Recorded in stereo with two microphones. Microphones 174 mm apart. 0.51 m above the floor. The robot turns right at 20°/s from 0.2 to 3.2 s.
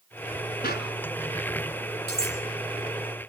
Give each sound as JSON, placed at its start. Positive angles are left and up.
{"t": 0.6, "sound": "a clap", "side_deg": 65, "distance_m": 4.0}
{"t": 2.1, "sound": "cutlery clinking", "side_deg": 65, "distance_m": 8.5}